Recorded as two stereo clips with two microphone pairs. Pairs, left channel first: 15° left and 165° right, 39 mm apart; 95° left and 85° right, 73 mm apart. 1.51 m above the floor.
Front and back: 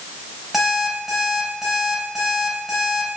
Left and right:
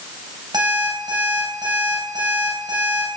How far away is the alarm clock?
About 5.5 m.